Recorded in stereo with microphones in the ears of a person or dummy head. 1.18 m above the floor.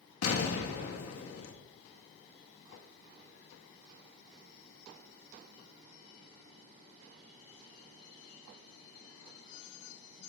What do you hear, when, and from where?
0.2 s an explosion: 80° left, 2.0 m